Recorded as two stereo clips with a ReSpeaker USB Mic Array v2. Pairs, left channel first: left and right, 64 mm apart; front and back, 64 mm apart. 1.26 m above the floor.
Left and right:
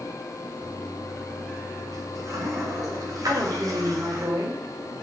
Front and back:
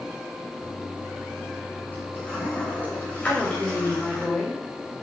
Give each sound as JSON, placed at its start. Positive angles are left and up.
{"t": 0.6, "sound": "a toilet flushing", "azimuth_deg": -65, "distance_m": 7.0}
{"t": 3.2, "sound": "a woman speaking", "azimuth_deg": -75, "distance_m": 5.0}